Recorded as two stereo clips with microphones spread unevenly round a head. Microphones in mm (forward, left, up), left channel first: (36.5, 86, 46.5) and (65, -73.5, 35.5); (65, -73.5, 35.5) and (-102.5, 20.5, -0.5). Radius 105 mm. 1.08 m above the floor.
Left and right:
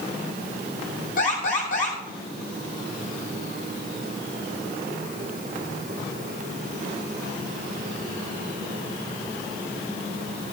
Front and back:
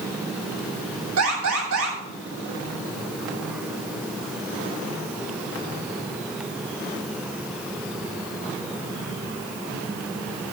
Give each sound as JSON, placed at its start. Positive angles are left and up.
{"t": 1.2, "sound": "an alarm", "azimuth_deg": 150, "distance_m": 9.0}